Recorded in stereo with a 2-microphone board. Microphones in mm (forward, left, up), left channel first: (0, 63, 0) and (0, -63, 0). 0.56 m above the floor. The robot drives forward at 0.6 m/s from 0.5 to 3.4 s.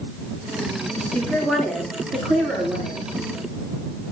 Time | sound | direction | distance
1.0 | a woman speaking | 5° left (ahead or behind) | 9.5 m